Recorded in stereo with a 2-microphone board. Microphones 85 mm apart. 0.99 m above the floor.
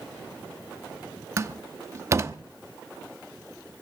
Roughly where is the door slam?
Right.